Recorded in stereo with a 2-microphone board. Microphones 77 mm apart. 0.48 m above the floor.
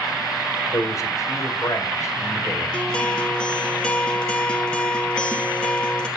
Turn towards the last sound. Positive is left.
turn(degrees=10)  # may be behind; listen again after turning